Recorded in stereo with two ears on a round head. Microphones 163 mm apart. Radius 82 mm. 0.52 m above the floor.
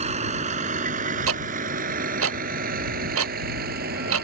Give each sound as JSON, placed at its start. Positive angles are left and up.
{"t": 0.0, "sound": "a vehicle", "side_deg": -40}
{"t": 1.3, "sound": "ticking", "side_deg": -85}